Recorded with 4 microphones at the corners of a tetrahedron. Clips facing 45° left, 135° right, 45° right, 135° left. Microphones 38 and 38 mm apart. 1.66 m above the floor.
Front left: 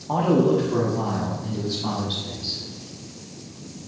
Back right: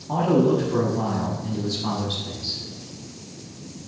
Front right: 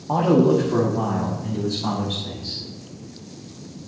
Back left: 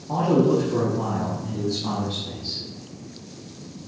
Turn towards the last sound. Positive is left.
turn(degrees=-40)